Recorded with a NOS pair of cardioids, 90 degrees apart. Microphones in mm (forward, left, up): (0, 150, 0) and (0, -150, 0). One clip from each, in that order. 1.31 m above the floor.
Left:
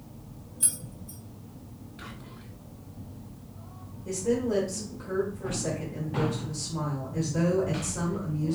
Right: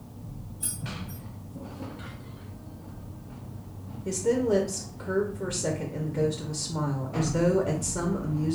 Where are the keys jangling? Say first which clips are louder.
Left 2 dB; 50° left, 1.3 m.